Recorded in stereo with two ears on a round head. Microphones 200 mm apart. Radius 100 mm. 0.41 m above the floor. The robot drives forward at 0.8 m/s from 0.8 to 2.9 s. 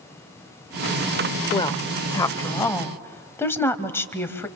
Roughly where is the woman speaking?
Left.